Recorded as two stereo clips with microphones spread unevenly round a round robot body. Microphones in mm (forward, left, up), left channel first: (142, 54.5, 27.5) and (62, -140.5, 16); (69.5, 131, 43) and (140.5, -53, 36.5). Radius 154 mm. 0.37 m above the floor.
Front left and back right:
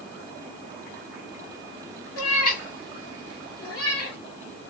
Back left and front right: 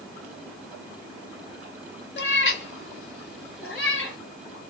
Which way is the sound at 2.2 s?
75° left.